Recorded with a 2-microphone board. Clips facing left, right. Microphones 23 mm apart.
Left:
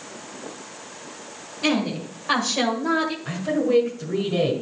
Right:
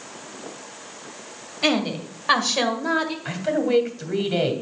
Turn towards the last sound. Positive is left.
turn(degrees=-50)  # may be behind; listen again after turning